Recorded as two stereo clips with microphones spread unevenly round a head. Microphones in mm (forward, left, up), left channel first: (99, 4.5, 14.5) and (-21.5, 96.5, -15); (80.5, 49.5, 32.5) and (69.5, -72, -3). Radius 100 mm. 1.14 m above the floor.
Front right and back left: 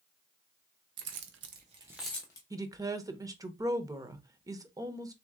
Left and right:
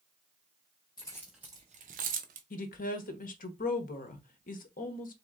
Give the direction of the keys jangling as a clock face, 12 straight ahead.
7 o'clock.